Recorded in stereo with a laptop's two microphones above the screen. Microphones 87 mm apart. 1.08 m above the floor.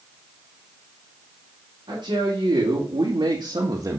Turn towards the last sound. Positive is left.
turn(degrees=-45)  # may be behind; listen again after turning